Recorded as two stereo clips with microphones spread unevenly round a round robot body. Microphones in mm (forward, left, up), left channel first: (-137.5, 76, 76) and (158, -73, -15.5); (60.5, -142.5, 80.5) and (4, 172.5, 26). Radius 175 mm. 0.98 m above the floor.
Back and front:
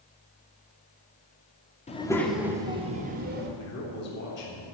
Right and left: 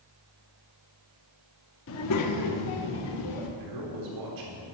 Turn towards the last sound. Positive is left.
turn(degrees=90)